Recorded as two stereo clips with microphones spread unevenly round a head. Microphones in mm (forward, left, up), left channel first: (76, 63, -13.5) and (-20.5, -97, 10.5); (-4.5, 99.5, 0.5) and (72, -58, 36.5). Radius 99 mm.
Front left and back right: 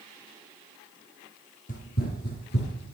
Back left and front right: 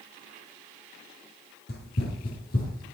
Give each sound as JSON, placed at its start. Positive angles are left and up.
{"t": 1.7, "sound": "running footsteps", "azimuth_deg": 100, "distance_m": 2.5}